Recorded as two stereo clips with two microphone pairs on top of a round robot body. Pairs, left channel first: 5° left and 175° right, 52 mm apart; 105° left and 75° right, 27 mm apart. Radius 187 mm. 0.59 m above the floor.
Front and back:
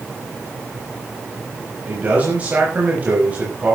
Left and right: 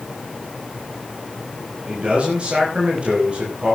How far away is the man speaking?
About 6 m.